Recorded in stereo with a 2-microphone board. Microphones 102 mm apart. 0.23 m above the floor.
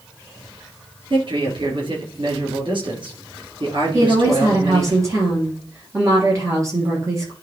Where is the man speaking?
55° right (ahead or behind), 3 m.